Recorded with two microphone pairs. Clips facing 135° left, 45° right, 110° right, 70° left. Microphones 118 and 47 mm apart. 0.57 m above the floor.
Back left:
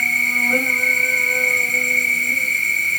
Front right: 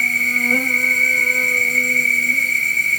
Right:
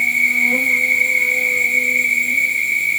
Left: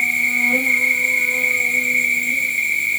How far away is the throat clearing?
I don't hear throat clearing.